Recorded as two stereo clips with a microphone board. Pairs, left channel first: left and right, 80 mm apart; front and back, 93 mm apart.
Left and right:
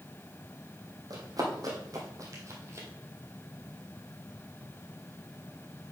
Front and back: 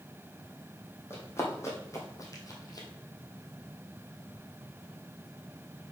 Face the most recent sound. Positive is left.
turn(degrees=-40)